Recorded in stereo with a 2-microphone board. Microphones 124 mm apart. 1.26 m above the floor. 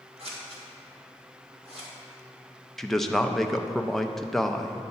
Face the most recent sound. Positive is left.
turn(degrees=0)  # may be behind; listen again after turning